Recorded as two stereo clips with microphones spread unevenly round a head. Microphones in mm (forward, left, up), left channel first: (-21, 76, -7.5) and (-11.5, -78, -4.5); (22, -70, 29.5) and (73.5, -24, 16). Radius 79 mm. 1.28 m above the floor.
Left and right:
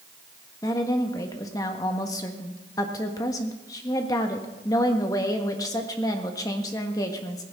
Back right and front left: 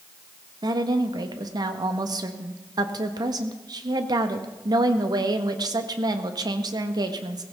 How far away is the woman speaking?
About 1.4 m.